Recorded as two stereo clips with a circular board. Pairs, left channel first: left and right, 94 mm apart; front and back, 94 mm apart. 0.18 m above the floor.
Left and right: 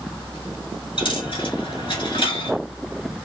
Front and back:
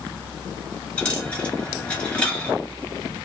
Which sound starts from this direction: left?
A dropped coin, at 1.0 s.